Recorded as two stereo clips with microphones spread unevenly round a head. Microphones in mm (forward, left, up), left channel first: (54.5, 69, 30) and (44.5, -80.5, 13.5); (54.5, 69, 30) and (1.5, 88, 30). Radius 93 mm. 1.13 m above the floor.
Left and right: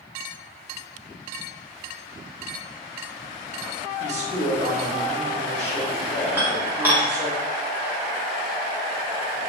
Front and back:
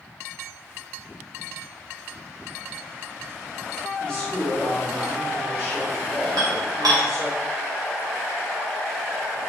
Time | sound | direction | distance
4.0 | a man speaking | 95° right | 0.8 m
6.4 | dishes clattering | 175° right | 0.6 m